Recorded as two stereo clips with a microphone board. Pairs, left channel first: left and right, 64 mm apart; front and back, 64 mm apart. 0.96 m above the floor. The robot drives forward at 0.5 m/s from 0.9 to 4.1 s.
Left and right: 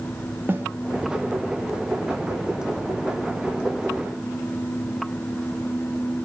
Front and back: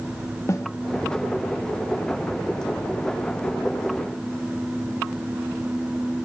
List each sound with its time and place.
0.5 s a snare drum: 35° right, 2 m